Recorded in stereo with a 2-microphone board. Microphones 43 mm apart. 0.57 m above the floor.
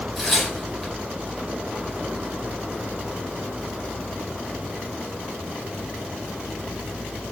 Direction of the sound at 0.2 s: Centre (ahead or behind).